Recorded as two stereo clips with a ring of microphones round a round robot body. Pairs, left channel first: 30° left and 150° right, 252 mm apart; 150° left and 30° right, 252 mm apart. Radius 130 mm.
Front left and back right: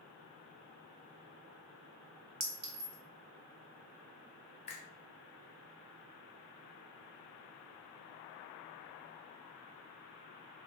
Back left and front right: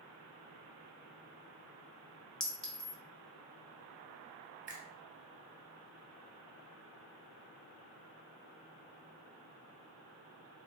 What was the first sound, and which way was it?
A clink, 125° right.